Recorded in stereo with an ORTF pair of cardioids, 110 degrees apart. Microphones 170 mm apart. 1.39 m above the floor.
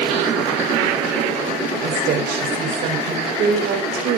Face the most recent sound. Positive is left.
turn(degrees=-65)